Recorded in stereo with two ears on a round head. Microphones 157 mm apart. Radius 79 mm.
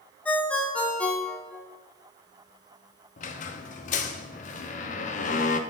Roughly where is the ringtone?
Centre.